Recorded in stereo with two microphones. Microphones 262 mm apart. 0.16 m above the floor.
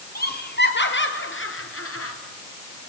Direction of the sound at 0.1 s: 35° left (ahead or behind).